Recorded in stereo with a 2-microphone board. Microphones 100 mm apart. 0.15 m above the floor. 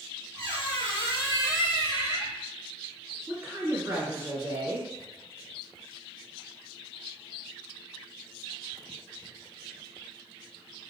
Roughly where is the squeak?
Right.